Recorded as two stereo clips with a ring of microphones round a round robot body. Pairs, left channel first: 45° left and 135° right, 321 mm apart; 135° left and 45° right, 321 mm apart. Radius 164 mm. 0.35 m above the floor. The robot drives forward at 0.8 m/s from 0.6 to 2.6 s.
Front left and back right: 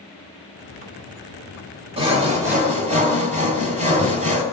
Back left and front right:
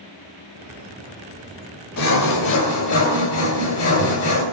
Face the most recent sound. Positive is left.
turn(degrees=160)